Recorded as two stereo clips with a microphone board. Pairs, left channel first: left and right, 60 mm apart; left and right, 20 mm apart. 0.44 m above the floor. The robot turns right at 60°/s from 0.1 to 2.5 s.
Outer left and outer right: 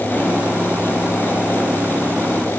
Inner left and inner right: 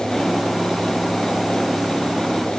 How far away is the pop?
No pop in this recording.